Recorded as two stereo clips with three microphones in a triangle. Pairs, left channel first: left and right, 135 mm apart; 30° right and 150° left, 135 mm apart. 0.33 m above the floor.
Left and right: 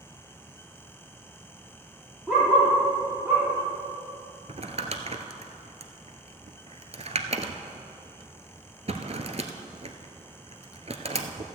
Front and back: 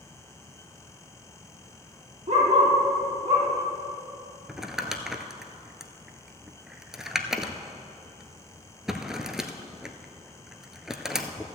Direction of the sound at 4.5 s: 125° right.